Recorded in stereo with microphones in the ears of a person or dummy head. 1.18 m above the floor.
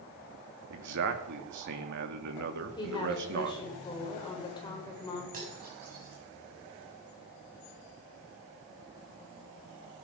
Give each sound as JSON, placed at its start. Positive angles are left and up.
{"t": 0.7, "sound": "a man speaking", "side_deg": -60, "distance_m": 2.0}
{"t": 2.8, "sound": "a woman speaking", "side_deg": 20, "distance_m": 4.5}
{"t": 5.3, "sound": "cutlery clinking", "side_deg": -40, "distance_m": 6.0}